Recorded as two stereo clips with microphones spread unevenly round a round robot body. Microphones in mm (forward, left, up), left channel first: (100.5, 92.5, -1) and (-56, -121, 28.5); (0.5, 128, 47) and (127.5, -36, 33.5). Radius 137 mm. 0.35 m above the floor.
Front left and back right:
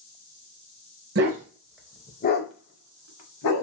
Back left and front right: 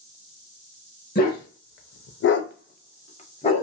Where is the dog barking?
Straight behind, 0.6 m; by 3.6 s 60° left, 1.1 m.